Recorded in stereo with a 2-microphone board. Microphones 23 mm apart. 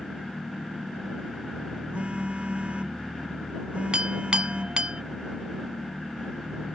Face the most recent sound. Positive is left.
turn(degrees=-40)  # may be behind; listen again after turning